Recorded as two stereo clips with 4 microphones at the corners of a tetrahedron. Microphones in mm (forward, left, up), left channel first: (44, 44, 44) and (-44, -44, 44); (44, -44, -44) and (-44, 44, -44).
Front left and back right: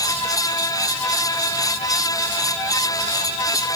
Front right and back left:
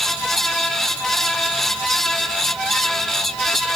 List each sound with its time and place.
Only background noise.